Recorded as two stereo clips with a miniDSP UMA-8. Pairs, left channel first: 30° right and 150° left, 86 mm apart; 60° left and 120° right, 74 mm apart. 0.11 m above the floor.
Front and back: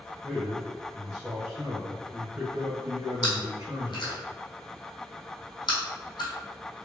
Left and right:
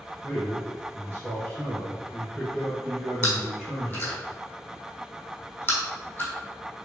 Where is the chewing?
5° right, 1.5 m.